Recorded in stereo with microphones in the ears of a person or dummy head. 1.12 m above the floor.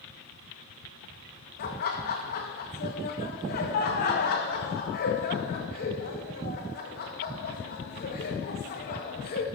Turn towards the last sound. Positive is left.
turn(degrees=50)  # may be behind; listen again after turning